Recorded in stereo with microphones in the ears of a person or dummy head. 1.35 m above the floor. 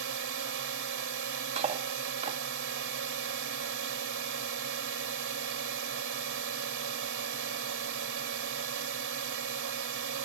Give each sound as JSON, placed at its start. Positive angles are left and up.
{"t": 0.0, "sound": "a drone", "side_deg": -60}
{"t": 1.6, "sound": "cutlery clinking", "side_deg": -35}